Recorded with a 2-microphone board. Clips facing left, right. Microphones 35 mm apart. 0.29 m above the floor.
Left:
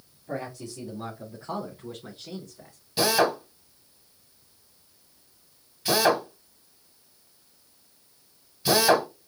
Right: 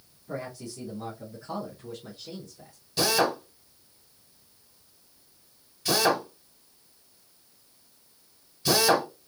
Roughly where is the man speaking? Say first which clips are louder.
Left 2 dB; left.